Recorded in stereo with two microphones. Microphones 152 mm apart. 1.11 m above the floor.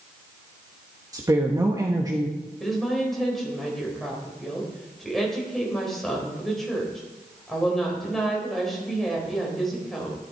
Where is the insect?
I don't hear an insect.